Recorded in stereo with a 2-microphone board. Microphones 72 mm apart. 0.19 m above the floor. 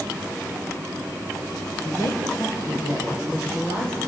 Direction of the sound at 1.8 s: 50° left (ahead or behind).